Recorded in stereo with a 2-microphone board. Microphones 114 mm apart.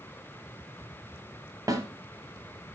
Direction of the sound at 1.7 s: 30° right (ahead or behind).